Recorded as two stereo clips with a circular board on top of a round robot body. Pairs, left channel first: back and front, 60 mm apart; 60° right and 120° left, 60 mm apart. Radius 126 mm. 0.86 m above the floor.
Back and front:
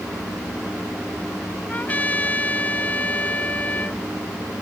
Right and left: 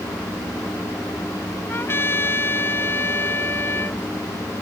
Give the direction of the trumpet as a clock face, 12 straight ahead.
4 o'clock.